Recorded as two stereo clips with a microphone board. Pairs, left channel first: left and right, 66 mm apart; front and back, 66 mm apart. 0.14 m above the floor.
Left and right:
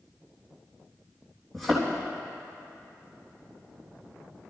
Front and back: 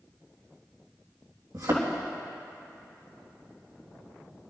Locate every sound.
1.5 s a thud: 175° left, 3.5 m